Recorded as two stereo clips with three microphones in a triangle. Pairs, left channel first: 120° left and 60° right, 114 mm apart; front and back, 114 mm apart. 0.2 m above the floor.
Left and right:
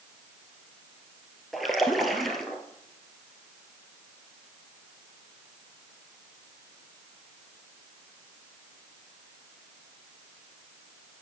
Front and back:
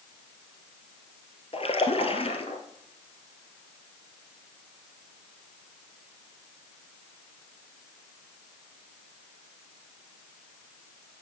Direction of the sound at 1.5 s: 30° left.